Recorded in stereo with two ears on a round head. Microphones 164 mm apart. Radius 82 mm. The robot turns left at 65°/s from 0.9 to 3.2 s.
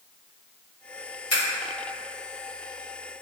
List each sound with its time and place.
1.3 s scissors: 45° left (ahead or behind), 1.6 m; by 1.4 s 35° left (ahead or behind), 1.6 m